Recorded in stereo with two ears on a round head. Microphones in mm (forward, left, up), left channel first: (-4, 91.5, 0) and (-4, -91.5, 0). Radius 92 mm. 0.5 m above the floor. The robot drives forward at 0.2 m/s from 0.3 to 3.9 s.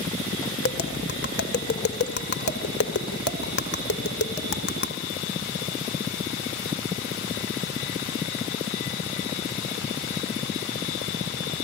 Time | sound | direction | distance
0.6 | tapping | 50° left (ahead or behind) | 2 m